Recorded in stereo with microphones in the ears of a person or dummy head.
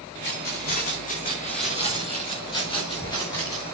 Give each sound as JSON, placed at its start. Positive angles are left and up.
{"t": 0.2, "sound": "keys jangling", "side_deg": 60, "distance_m": 3.5}